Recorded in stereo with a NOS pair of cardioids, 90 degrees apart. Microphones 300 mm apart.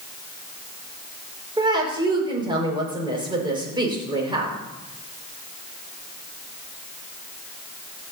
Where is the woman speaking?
15° right, 5.5 m.